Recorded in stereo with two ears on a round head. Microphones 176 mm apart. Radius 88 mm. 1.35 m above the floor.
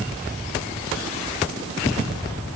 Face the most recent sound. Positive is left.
No sound to turn to.